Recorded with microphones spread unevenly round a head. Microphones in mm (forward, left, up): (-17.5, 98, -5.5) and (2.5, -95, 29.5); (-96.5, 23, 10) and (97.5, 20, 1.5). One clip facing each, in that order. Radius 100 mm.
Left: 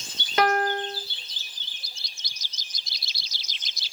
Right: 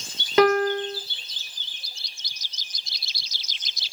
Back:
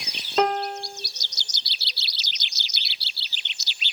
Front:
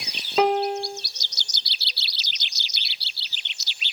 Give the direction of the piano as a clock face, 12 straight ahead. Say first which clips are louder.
Right 5 dB, front 3 dB; 3 o'clock.